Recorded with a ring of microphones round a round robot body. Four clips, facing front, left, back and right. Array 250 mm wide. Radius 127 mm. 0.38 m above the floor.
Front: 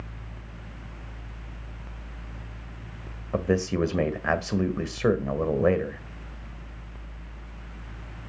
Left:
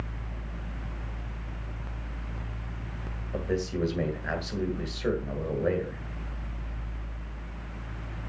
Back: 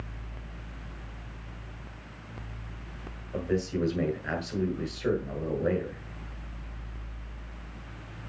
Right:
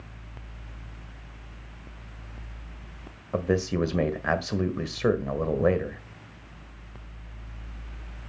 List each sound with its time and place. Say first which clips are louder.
3.3 s a man speaking: right 4 dB, front 4 dB; 40° right, 1.6 m